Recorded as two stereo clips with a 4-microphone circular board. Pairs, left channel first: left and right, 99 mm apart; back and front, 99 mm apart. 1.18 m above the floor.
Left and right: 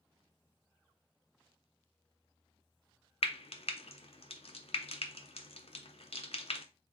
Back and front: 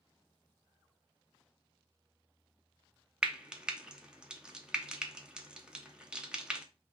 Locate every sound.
3.2 s frying: 80° left, 0.6 m